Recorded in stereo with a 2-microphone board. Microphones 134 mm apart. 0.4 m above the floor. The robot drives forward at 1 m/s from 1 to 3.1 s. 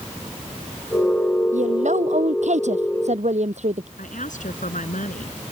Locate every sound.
1.5 s a woman speaking: 65° right (ahead or behind); by 3.9 s 60° right (ahead or behind)
4.0 s a woman speaking: 75° left (ahead or behind)